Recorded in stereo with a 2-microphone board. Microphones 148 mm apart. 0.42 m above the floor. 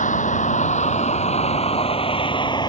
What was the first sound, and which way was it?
A vehicle, 55° left (ahead or behind).